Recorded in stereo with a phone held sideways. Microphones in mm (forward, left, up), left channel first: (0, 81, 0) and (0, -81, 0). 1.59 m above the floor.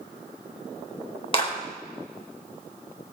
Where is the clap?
35° left (ahead or behind), 4.5 m.